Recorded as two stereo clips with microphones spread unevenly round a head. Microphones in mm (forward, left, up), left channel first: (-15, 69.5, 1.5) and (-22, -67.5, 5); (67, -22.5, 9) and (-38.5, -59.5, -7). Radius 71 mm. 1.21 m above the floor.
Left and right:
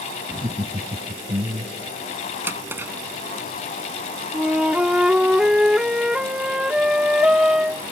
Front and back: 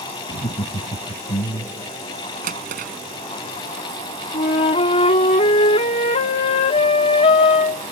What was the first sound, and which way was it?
Laughter, 25° right.